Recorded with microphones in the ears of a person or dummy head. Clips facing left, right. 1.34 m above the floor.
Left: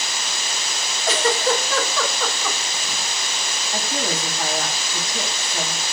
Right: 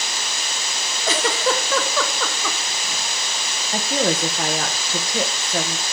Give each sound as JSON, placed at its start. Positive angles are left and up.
{"t": 1.1, "sound": "a giggle", "side_deg": -65, "distance_m": 1.4}
{"t": 3.7, "sound": "a woman speaking", "side_deg": -55, "distance_m": 1.2}